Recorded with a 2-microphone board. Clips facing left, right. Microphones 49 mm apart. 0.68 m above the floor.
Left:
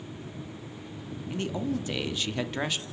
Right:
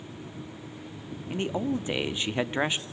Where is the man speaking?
20° right (ahead or behind), 0.9 m.